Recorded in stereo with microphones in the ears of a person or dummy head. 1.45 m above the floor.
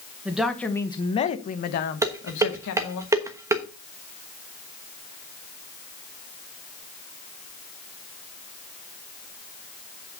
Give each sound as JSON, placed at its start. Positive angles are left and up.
{"t": 0.2, "sound": "a woman speaking", "side_deg": -10, "distance_m": 1.1}
{"t": 2.0, "sound": "dishes clattering", "side_deg": -20, "distance_m": 1.1}